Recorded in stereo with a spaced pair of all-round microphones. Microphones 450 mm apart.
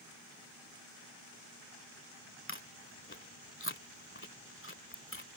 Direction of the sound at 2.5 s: 25° left (ahead or behind).